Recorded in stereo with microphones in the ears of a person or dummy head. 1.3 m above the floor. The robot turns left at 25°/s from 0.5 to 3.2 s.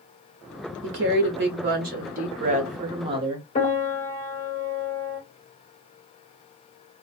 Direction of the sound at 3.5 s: 35° left (ahead or behind).